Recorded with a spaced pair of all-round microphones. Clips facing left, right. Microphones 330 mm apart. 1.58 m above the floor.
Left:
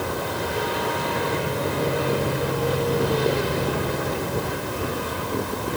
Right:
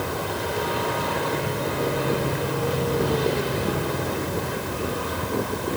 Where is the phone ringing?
No phone ringing in this recording.